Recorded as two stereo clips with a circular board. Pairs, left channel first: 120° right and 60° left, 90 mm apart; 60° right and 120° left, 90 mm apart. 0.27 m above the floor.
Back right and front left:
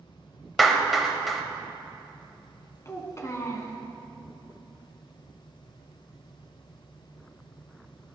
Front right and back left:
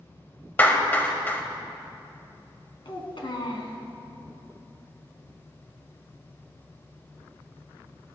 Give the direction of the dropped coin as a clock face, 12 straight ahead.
I don't hear a dropped coin.